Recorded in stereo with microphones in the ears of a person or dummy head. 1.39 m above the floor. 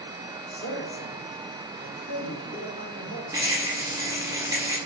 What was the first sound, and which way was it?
A man speaking, 65° left (ahead or behind).